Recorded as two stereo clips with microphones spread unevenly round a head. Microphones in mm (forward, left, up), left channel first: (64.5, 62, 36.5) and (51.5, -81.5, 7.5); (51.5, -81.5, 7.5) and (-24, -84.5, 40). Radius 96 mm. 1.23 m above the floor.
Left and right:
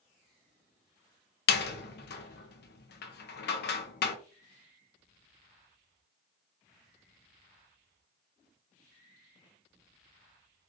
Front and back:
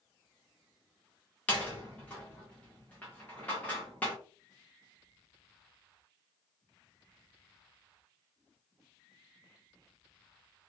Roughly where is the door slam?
Left.